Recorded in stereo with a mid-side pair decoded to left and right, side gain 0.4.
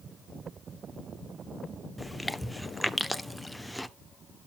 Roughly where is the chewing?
Ahead.